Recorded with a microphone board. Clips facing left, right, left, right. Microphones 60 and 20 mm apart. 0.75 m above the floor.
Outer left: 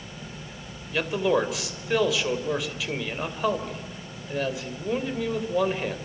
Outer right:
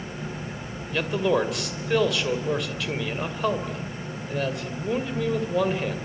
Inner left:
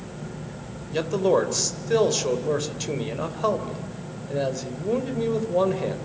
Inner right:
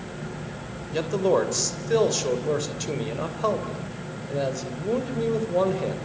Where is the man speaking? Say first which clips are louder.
Even, inner left 1 dB; centre (ahead or behind), 3 m.